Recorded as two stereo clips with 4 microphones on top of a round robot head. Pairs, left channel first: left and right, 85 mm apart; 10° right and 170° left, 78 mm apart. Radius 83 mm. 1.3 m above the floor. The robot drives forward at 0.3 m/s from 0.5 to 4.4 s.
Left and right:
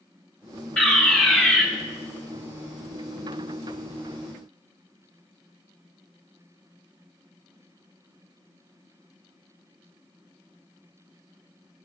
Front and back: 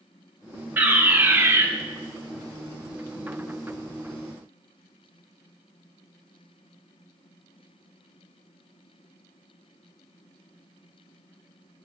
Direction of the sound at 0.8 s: 150° left.